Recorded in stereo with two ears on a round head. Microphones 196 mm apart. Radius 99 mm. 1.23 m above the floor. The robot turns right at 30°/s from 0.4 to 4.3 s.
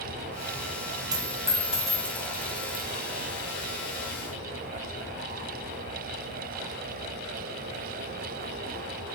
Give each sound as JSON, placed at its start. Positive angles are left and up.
{"t": 1.1, "sound": "a dropped coin", "side_deg": -20, "distance_m": 1.6}